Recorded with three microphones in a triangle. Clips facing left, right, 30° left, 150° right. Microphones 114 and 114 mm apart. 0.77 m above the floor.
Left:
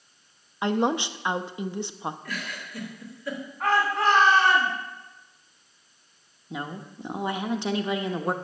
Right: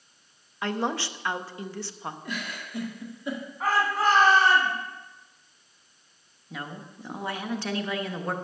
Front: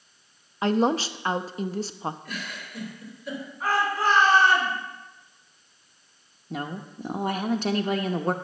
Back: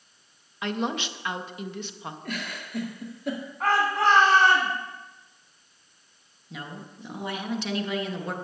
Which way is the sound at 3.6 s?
175° right.